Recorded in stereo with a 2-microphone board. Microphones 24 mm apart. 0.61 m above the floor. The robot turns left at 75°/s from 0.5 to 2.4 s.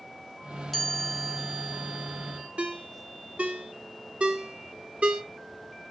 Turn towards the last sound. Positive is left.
turn(degrees=-65)  # may be behind; listen again after turning